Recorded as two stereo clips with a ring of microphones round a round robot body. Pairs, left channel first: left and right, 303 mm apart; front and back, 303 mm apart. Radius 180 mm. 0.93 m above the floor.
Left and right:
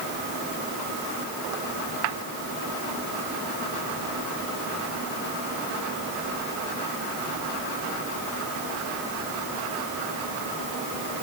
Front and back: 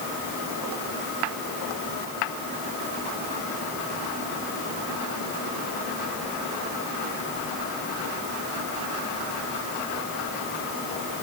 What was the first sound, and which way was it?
Only background noise.